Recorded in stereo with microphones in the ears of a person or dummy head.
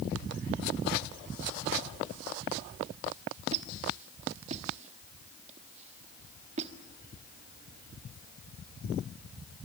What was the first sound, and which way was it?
A squeak, 40° right (ahead or behind).